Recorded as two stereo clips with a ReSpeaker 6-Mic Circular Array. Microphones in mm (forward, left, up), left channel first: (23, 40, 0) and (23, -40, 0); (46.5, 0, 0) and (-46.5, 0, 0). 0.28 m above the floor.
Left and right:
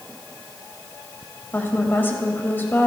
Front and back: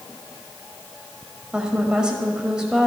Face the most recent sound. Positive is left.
turn(degrees=110)